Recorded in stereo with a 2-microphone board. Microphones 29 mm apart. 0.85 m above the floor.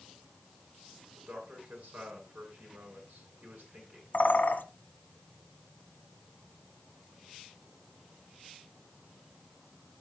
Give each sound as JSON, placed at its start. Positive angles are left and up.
{"t": 1.1, "sound": "a man speaking", "side_deg": -65, "distance_m": 7.5}
{"t": 4.1, "sound": "a bird", "side_deg": 60, "distance_m": 1.4}